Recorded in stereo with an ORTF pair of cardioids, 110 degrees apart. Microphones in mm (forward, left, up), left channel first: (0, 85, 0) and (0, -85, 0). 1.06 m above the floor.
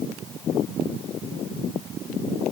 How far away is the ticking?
I don't hear ticking.